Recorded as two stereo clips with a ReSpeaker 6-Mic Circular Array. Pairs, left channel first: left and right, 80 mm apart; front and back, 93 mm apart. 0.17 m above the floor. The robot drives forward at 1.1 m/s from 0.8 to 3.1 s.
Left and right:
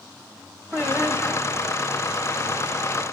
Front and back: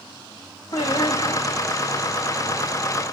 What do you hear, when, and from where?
0.7 s singing: 5° right, 6.5 m